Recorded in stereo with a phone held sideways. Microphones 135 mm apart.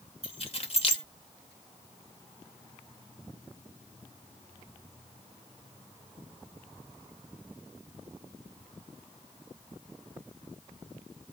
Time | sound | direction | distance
0.2 | keys jangling | 45° left (ahead or behind) | 0.8 m